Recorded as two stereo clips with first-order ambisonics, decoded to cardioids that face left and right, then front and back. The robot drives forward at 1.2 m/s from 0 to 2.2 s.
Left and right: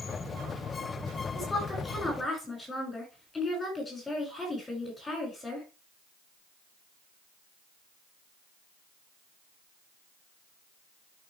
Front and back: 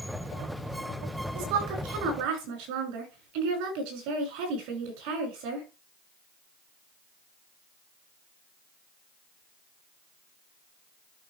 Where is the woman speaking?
170° left, 5 m.